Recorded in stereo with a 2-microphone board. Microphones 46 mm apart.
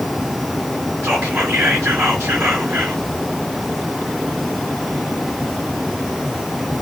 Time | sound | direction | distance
1.0 | whispering | 55° right (ahead or behind) | 2.5 m